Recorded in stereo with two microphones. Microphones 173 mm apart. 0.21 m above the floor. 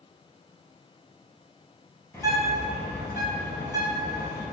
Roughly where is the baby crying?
I don't hear a baby crying.